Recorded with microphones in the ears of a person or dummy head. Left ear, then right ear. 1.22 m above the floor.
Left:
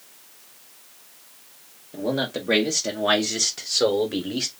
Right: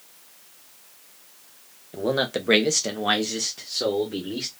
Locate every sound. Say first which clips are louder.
1.9 s a man speaking: right 2 dB; 55° right (ahead or behind), 0.9 m; by 4.5 s 50° left (ahead or behind), 0.9 m